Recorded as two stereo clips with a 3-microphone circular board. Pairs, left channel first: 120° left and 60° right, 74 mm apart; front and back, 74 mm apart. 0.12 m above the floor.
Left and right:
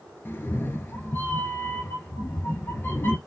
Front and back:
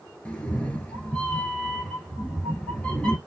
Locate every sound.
0.2 s a cat meowing: 70° left, 0.9 m